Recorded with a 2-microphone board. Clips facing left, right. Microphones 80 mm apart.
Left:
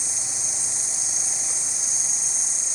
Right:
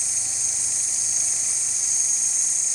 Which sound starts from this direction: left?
An insect, at 0.0 s.